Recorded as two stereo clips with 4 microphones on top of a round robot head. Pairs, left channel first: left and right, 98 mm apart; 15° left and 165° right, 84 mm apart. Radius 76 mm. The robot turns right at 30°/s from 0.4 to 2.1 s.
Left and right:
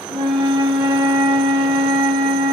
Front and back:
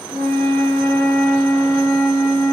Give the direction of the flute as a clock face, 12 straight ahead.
4 o'clock.